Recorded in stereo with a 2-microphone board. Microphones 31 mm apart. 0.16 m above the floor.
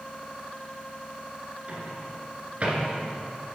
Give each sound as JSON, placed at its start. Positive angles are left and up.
{"t": 1.7, "sound": "a microwave", "side_deg": -45, "distance_m": 1.8}